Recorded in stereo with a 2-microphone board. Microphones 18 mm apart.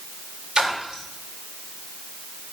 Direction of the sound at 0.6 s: 45° right (ahead or behind).